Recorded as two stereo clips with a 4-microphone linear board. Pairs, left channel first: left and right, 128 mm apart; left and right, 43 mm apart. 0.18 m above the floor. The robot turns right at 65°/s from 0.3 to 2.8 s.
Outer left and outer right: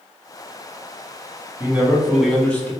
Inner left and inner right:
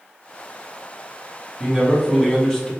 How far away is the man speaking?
About 1.3 m.